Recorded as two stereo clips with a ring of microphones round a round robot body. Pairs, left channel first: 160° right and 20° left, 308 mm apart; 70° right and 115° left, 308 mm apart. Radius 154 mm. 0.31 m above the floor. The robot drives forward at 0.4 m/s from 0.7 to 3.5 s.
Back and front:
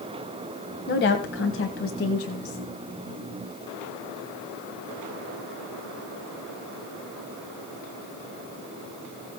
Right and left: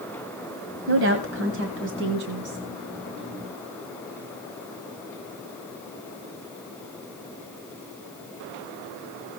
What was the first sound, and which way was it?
A woman speaking, 155° left.